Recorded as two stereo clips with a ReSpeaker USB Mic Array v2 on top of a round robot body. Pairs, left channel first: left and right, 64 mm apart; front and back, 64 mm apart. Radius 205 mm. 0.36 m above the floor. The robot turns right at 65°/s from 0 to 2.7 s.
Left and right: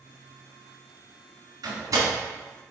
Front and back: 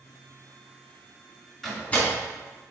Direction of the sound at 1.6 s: 90° right.